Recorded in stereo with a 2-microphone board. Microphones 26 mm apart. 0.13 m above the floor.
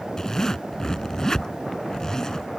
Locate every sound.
0.2 s a zipper: 20° left (ahead or behind)